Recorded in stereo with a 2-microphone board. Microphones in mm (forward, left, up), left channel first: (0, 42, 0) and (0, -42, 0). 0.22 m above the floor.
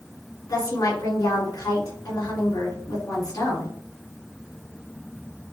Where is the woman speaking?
50° left (ahead or behind), 3.5 m.